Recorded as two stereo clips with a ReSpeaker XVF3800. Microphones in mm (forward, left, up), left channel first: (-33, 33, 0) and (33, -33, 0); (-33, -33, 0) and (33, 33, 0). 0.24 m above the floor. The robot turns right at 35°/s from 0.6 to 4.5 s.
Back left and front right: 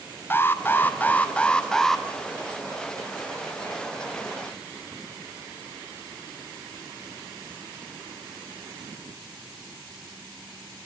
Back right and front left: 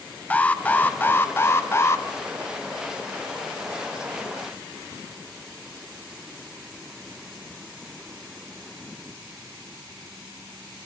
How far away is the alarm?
About 0.9 m.